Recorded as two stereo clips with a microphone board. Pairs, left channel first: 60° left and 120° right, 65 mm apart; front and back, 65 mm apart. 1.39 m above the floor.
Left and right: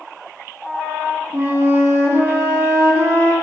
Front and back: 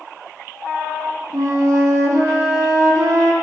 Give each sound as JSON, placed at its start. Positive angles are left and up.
{"t": 1.3, "sound": "a flute", "azimuth_deg": -170, "distance_m": 3.5}